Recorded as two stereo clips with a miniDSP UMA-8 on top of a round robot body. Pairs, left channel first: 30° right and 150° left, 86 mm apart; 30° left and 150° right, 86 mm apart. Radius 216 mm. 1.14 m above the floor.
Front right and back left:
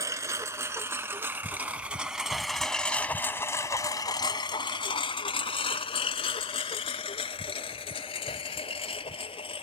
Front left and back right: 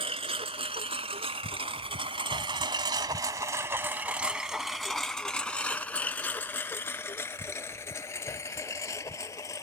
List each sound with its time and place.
0.0 s a lawn mower: 155° right; by 9.6 s 25° right